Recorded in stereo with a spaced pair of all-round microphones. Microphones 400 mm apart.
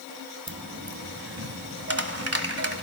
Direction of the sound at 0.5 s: 35° right (ahead or behind).